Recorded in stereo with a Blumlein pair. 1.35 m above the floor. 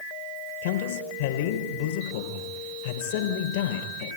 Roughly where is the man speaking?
Ahead left.